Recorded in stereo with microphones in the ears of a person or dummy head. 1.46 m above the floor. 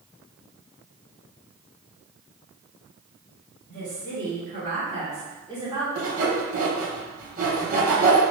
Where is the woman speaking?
65° right (ahead or behind), 1.8 m; by 5.8 s 15° right (ahead or behind), 1.1 m.